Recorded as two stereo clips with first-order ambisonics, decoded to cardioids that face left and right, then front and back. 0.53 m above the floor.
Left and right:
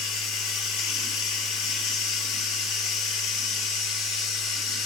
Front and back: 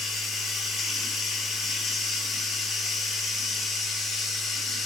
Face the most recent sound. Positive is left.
turn(degrees=75)